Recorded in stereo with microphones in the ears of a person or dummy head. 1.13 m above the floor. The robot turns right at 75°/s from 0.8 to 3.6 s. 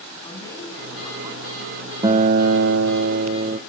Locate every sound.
0.2 s a man speaking: 165° left, 9.5 m; by 1.9 s 110° right, 9.5 m
2.0 s a guitar: 155° right, 0.8 m; by 3.6 s 40° right, 0.8 m